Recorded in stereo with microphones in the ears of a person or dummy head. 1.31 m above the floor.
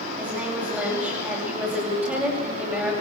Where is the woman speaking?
10° right (ahead or behind), 5.5 m.